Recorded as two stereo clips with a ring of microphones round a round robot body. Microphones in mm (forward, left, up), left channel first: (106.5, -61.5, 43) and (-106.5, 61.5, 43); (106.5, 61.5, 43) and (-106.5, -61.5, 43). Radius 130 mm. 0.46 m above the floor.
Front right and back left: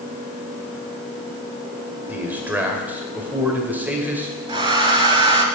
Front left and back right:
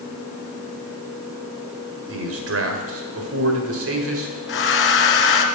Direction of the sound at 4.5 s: 80° left.